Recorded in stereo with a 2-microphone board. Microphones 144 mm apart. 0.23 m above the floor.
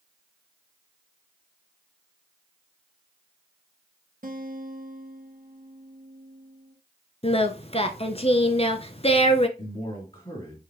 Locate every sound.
4.2 s a guitar: 70° right (ahead or behind), 1.6 m
7.2 s singing: 45° left (ahead or behind), 0.7 m
9.6 s a man speaking: 40° left (ahead or behind), 3 m